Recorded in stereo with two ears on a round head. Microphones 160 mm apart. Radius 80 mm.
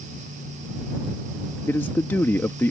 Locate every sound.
1.7 s a man speaking: 10° left (ahead or behind)